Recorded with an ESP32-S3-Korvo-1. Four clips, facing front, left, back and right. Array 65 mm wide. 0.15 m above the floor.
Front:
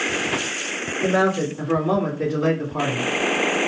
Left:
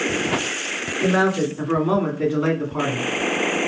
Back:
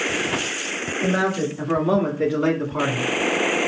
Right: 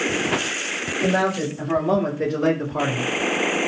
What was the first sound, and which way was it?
A man speaking, 85° left.